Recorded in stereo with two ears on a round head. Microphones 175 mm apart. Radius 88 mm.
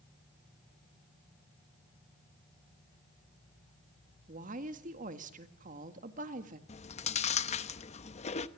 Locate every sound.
4.3 s a woman speaking: 40° right (ahead or behind), 1.8 m
6.7 s chewing: 35° left (ahead or behind), 0.9 m